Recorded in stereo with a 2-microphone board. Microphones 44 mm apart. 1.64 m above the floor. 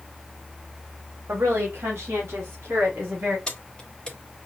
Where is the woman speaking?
70° right (ahead or behind), 1.6 m; by 3.4 s 60° right (ahead or behind), 3.5 m.